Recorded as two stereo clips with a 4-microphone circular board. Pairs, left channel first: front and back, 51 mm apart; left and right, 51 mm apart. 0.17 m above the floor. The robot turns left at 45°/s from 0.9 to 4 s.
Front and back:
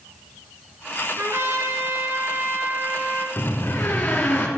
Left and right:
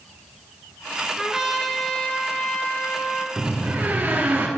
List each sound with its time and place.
1.2 s a trumpet: 160° right, 1.8 m; by 3.3 s 105° left, 1.8 m
3.4 s a door slam: 15° right, 1.8 m; by 4.5 s 40° right, 1.8 m